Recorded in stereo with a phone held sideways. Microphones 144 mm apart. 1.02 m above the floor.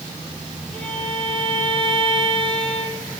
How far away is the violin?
About 5.5 m.